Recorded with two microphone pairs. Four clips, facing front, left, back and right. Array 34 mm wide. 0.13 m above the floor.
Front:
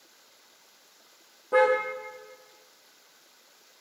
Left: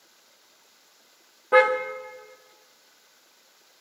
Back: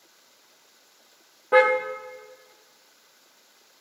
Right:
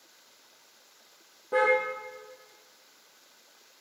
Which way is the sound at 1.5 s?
135° left.